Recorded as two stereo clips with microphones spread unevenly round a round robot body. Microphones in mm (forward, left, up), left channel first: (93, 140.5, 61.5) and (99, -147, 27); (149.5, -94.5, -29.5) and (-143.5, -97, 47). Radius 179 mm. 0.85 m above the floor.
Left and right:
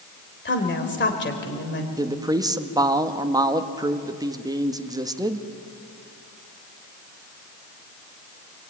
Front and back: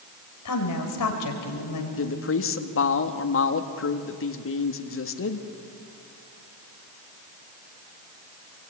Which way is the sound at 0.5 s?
40° left.